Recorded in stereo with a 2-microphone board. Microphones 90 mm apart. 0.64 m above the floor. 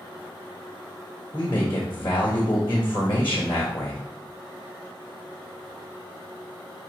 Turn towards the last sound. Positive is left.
turn(degrees=60)  # may be behind; listen again after turning